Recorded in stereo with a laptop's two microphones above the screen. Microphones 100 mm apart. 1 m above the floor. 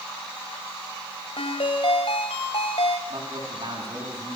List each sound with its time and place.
1.4 s a ringtone: 80° left, 2 m
3.1 s a man speaking: 55° right (ahead or behind), 9 m